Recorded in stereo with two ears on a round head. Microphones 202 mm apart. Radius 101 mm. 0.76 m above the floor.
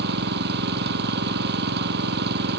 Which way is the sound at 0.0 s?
50° right (ahead or behind).